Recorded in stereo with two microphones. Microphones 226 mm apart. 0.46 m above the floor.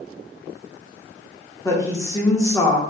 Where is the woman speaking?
15° left (ahead or behind), 0.7 m.